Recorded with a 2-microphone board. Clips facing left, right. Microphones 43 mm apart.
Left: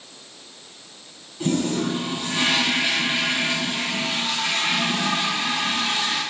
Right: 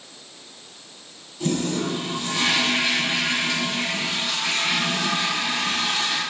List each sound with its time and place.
1.4 s a toilet flushing: 20° left (ahead or behind), 1.7 m